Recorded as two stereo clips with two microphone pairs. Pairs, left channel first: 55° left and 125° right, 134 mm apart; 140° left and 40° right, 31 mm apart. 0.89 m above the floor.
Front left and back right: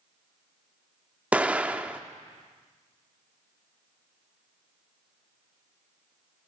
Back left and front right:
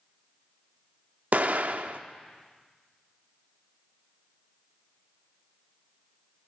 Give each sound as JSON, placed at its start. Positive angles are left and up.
{"t": 1.3, "sound": "an explosion", "azimuth_deg": -45, "distance_m": 0.6}